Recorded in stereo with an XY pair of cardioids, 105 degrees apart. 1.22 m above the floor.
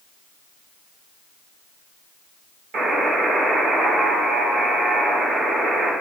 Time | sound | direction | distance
2.7 | a buzzer | 65° right | 2.0 m